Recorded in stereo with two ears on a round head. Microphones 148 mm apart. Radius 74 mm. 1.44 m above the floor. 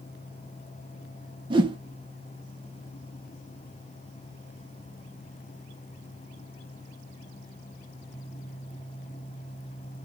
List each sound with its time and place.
1.5 s a whoosh: 30° right (ahead or behind), 0.8 m